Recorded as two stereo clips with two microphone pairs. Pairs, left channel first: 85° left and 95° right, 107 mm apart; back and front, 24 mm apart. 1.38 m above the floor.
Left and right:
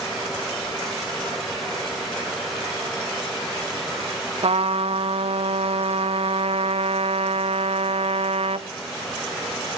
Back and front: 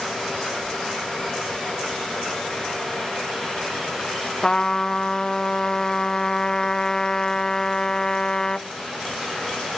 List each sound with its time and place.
4.4 s a trumpet: 115° right, 0.7 m